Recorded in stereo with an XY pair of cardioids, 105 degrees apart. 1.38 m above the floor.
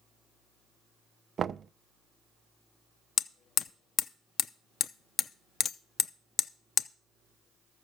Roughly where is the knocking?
Ahead right.